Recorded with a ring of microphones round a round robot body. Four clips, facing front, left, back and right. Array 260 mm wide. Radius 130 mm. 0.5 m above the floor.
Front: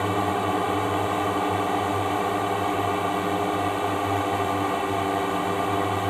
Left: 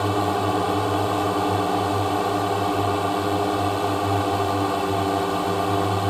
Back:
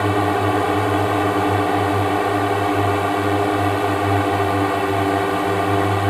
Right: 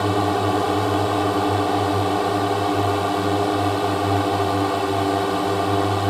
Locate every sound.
0.0 s a drone: 160° right